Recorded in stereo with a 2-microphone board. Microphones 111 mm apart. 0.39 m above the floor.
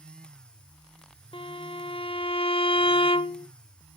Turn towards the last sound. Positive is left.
turn(degrees=55)  # may be behind; listen again after turning